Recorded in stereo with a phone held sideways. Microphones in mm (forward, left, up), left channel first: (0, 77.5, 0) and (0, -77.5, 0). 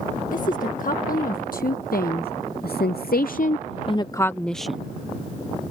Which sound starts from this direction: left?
A woman speaking, at 0.3 s.